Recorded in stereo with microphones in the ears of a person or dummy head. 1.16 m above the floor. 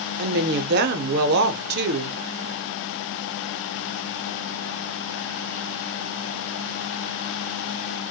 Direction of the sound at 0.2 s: 45° right (ahead or behind).